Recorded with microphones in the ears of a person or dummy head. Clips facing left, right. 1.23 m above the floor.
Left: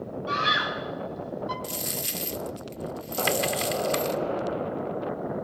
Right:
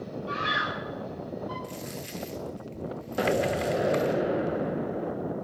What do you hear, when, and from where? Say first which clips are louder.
0.3 s a scream: left 4 dB; 65° left (ahead or behind), 8 m; by 1.5 s 70° left (ahead or behind), 8 m
1.6 s a dropped coin: left 2 dB; 50° left (ahead or behind), 1.3 m
3.2 s an explosion: right 2 dB; 20° right (ahead or behind), 0.9 m